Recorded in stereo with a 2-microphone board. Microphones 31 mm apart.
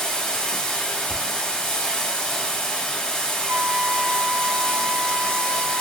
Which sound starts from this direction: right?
A flute, at 3.5 s.